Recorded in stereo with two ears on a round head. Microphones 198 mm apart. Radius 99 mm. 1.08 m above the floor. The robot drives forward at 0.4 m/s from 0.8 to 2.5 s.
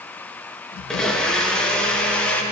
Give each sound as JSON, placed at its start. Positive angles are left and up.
{"t": 0.9, "sound": "a blender", "side_deg": 5, "distance_m": 1.2}